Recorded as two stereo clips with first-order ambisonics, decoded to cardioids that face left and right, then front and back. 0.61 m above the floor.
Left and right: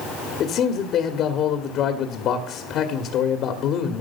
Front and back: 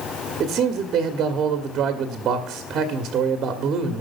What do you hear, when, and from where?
0.4 s a man speaking: 130° left, 1.2 m